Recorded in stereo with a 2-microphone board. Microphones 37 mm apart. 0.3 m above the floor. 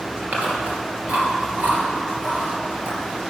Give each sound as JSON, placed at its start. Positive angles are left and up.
{"t": 0.2, "sound": "chewing", "side_deg": -40, "distance_m": 2.5}